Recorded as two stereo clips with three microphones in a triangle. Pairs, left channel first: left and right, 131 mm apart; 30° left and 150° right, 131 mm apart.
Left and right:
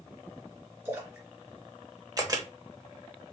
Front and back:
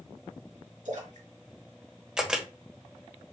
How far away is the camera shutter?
About 0.9 m.